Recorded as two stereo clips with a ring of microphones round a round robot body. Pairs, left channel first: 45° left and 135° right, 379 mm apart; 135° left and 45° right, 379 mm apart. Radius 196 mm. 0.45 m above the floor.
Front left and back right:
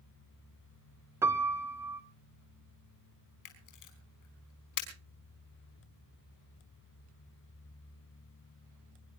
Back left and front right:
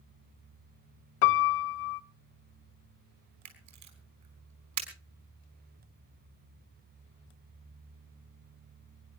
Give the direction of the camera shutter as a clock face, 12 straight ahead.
12 o'clock.